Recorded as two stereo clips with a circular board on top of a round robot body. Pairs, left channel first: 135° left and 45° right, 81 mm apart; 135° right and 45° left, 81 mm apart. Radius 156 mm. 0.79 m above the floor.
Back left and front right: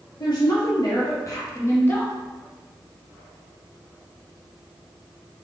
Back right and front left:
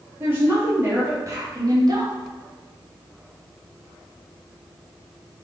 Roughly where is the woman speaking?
Left.